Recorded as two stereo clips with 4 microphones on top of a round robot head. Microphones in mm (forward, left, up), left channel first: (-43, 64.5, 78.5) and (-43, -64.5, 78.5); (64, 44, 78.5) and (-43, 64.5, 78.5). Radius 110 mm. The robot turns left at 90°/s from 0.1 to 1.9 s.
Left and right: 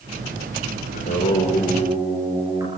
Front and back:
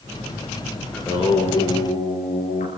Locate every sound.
0.9 s singing: 65° left, 8 m; by 2.7 s 20° right, 8 m